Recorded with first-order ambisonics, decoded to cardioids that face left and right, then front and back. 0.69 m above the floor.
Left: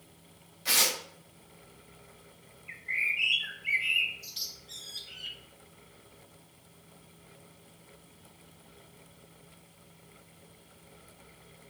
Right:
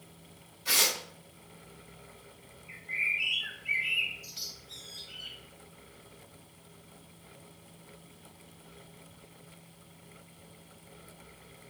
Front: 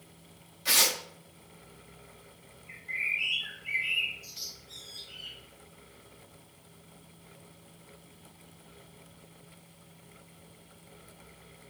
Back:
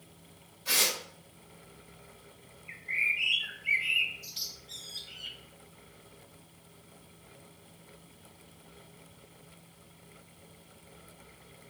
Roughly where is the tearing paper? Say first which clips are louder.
Even, front 3 dB; ahead left.